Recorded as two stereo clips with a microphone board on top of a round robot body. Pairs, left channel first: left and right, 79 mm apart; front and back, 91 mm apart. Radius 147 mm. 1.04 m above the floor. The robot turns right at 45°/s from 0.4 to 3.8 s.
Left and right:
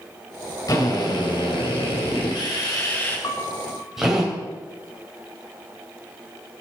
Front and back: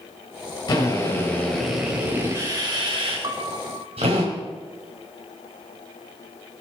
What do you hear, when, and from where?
0.7 s a drill: 45° left, 3.5 m; by 4.2 s 175° right, 3.5 m
3.2 s a piano: 135° left, 0.8 m; by 4.1 s 160° left, 0.8 m